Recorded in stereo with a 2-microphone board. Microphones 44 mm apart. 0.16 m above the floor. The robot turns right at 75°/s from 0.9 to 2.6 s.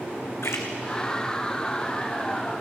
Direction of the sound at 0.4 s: 75° left (ahead or behind).